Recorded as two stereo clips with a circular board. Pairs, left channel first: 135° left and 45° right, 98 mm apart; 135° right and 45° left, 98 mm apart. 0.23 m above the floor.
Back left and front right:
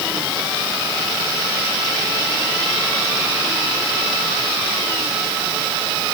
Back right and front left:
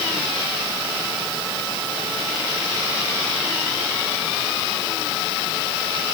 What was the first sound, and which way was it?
Only background noise.